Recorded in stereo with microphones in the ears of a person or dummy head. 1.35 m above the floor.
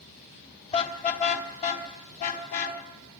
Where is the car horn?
35° left (ahead or behind), 3 m; by 2.8 s 40° left (ahead or behind), 4 m.